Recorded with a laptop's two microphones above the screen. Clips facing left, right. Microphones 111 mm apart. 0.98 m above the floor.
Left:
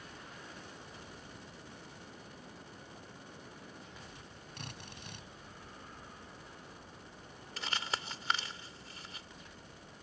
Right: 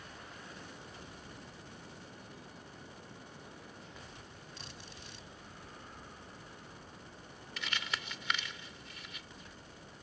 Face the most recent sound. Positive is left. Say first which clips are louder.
# left 2 dB
turn(degrees=40)  # may be behind; listen again after turning